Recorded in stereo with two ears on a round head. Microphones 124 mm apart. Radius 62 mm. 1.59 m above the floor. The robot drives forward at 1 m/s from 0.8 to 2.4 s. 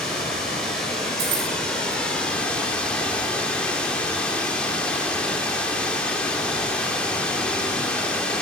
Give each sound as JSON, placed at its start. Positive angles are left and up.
{"t": 0.0, "sound": "running water", "side_deg": 5, "distance_m": 4.0}
{"t": 1.2, "sound": "keys jangling", "side_deg": -50, "distance_m": 4.5}